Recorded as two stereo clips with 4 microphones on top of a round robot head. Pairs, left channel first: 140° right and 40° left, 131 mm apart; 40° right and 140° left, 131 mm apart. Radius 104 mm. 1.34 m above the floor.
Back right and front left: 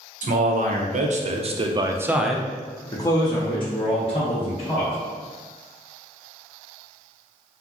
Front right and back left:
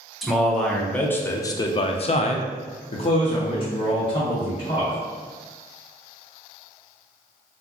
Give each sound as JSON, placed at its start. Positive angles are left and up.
{"t": 0.2, "sound": "a man speaking", "azimuth_deg": 50, "distance_m": 1.0}